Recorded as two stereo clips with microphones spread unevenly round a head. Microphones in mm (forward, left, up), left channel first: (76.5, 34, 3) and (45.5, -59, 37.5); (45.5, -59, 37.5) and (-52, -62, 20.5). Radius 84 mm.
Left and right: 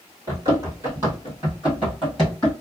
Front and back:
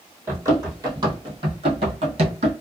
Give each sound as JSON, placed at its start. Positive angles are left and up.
{"t": 0.3, "sound": "running footsteps", "azimuth_deg": -110, "distance_m": 1.7}